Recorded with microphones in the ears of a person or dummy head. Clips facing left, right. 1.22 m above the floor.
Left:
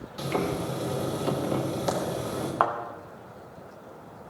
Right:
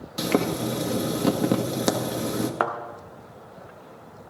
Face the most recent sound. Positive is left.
turn(degrees=-25)  # may be behind; listen again after turning